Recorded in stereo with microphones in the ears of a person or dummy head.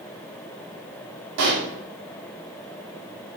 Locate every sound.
1.4 s a pop: 70° right (ahead or behind), 2.5 m